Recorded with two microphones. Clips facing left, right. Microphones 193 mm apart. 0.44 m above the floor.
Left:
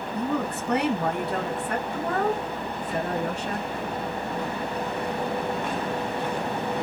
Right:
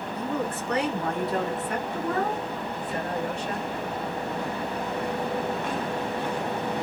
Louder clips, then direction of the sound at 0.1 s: Left 2 dB; 65° left (ahead or behind).